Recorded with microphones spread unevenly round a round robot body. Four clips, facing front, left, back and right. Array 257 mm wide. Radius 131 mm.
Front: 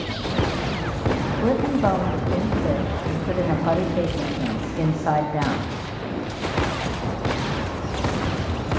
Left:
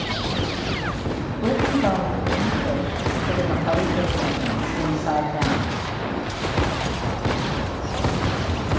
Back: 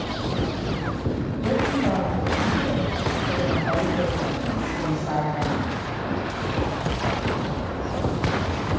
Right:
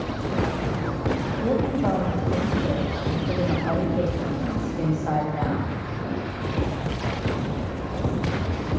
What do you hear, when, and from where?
1.4 s a woman speaking: 25° left, 1.1 m